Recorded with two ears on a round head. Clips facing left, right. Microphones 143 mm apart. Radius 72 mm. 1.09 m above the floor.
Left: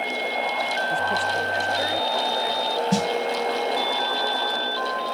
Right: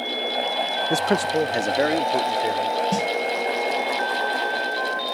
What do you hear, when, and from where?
0.9 s a man speaking: 80° right; by 2.8 s 60° right (ahead or behind)
2.9 s a snare drum: 10° left (ahead or behind)